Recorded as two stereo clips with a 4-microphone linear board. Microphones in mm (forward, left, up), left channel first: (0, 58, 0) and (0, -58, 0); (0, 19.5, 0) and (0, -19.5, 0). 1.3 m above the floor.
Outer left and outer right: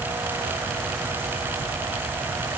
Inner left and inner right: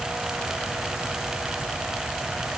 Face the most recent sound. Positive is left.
No sound to turn to.